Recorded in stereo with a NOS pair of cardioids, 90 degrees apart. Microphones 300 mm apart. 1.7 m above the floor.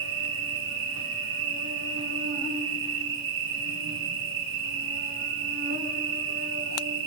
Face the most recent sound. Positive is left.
turn(degrees=-45)